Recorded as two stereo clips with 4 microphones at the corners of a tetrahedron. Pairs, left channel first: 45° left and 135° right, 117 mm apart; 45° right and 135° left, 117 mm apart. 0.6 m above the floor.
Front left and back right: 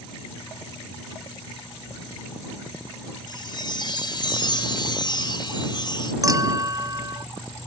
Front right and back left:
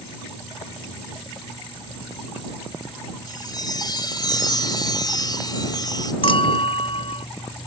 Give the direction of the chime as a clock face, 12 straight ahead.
12 o'clock.